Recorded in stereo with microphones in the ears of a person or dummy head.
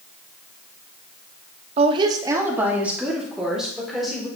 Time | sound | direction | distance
1.8 | a woman speaking | 45° right (ahead or behind) | 0.8 m